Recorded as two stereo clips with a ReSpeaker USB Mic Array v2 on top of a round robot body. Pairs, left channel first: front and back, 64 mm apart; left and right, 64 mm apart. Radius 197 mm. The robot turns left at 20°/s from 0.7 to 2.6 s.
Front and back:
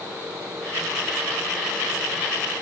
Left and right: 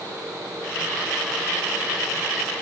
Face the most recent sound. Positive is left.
No sound to turn to.